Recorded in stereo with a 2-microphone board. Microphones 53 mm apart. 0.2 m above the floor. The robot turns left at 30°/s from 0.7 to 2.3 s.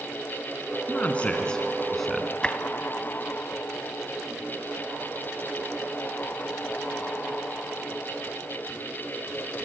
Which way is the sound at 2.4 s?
20° left (ahead or behind).